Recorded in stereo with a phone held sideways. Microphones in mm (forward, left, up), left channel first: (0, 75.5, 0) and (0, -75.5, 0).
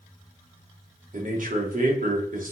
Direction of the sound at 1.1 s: 60° right (ahead or behind).